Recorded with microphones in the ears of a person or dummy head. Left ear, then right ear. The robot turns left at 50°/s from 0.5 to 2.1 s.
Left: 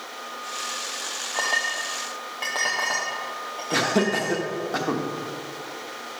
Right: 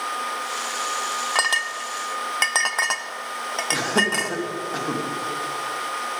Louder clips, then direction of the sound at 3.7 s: Even; 15° left (ahead or behind).